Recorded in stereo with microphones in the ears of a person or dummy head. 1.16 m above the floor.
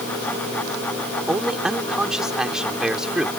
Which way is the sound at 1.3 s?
Centre (ahead or behind).